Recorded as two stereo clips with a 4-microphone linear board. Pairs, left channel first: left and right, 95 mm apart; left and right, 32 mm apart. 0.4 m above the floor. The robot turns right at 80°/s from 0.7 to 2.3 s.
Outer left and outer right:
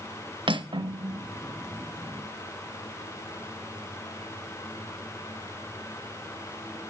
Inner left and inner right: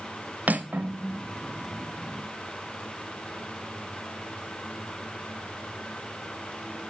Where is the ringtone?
I don't hear a ringtone.